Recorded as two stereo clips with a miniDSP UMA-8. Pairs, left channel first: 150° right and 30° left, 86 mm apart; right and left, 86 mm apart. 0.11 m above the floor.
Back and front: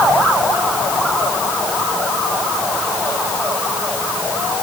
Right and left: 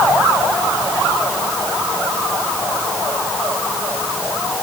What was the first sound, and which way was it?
Only background noise.